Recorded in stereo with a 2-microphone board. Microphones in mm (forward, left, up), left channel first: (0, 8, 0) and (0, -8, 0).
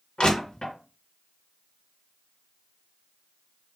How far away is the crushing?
About 3 m.